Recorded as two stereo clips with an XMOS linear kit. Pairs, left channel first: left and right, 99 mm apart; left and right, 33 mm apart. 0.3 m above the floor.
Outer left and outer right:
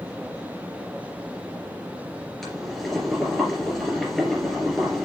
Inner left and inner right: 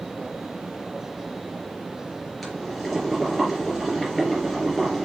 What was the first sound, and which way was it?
Boiling, 5° left (ahead or behind).